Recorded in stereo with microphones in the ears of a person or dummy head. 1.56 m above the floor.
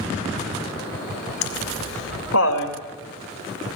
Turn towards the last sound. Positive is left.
turn(degrees=80)